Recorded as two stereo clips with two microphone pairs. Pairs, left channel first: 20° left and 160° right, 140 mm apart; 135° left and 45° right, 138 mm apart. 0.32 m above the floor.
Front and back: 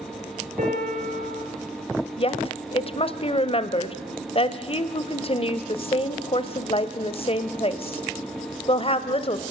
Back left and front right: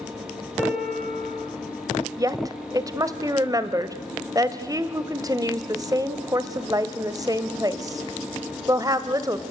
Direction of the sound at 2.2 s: 5° left.